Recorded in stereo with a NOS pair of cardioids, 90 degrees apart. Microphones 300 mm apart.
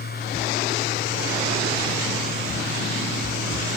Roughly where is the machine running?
Ahead left.